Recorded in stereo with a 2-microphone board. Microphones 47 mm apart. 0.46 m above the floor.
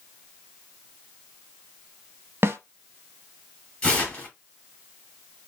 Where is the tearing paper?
20° left (ahead or behind), 1.8 m.